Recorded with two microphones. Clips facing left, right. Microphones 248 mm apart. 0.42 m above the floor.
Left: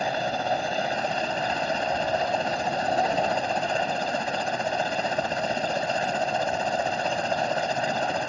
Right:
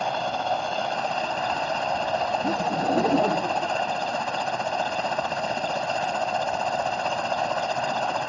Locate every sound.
0.0 s a helicopter: 15° left (ahead or behind)
2.4 s laughter: 65° right (ahead or behind)